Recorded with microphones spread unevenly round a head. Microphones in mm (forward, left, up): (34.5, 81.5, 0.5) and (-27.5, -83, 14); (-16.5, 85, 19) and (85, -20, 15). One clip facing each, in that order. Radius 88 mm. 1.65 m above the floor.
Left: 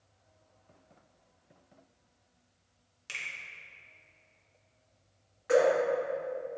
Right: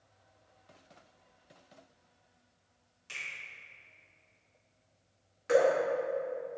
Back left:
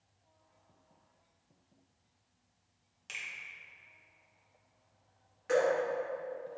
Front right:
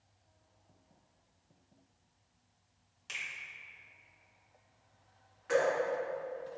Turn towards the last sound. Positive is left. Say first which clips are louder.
# left 1 dB, back left 1 dB
turn(degrees=-170)